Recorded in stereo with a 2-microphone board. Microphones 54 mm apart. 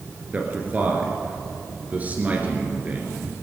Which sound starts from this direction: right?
A man speaking, at 0.3 s.